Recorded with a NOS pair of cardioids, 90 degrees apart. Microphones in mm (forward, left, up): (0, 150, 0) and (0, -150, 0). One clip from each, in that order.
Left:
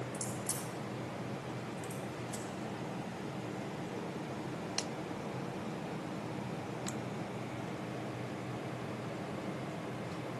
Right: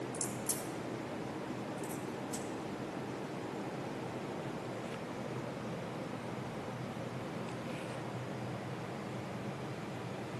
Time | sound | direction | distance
0.1 | a crack | 15° right | 3.5 m